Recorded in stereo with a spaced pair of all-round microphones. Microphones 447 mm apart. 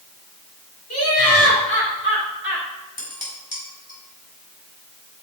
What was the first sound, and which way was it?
Laughter, 35° left (ahead or behind).